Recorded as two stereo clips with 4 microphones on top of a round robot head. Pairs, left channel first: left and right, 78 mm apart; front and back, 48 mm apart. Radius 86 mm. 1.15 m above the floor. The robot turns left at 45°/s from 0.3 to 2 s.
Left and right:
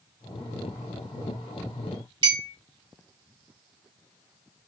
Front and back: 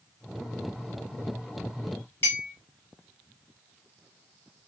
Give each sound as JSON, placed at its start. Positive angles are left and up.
{"t": 2.2, "sound": "a clink", "azimuth_deg": -60, "distance_m": 0.7}